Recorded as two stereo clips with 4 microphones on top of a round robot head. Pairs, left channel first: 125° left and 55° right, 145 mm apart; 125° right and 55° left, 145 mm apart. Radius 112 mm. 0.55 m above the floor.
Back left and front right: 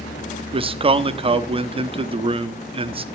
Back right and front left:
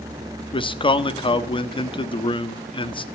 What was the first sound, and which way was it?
A man speaking, 85° right.